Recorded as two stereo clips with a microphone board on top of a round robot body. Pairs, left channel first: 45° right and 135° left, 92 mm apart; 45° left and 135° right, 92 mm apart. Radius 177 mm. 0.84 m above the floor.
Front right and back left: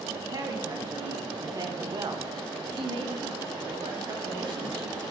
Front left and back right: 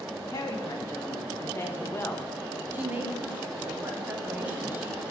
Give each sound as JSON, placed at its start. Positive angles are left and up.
{"t": 0.3, "sound": "a woman speaking", "azimuth_deg": 100, "distance_m": 2.0}
{"t": 2.7, "sound": "a woman speaking", "azimuth_deg": 155, "distance_m": 3.0}